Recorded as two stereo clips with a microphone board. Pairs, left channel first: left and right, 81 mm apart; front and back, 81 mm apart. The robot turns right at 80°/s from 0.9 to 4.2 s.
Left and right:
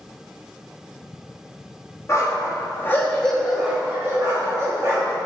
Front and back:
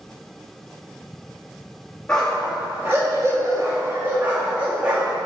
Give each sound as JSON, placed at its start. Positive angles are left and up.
{"t": 2.1, "sound": "a dog barking", "azimuth_deg": 75, "distance_m": 1.2}